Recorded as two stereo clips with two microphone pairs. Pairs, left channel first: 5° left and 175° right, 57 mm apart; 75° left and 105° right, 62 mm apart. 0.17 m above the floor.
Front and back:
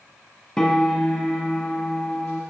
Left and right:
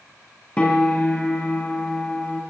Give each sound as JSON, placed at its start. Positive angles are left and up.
{"t": 0.6, "sound": "a piano", "azimuth_deg": 45, "distance_m": 1.2}